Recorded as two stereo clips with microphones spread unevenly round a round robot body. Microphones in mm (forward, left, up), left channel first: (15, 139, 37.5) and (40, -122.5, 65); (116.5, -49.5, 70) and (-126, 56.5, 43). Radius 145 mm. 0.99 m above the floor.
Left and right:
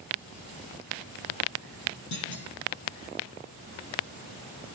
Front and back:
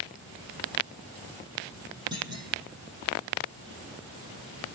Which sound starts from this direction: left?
A clunk, at 2.1 s.